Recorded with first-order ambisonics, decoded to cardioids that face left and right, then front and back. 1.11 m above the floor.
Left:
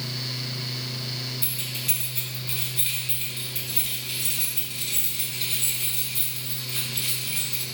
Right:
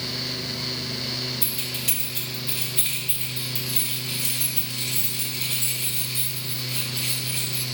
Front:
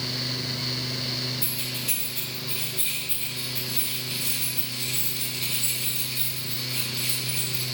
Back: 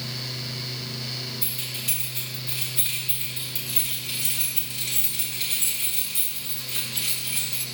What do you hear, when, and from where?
1.4 s keys jangling: 100° right, 4 m; by 7.6 s 165° right, 6.5 m